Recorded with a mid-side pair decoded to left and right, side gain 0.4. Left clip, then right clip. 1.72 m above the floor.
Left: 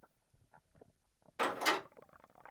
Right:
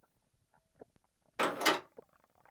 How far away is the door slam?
About 1.6 m.